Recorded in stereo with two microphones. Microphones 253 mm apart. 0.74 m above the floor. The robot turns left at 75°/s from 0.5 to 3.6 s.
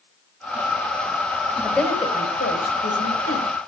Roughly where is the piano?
I don't hear a piano.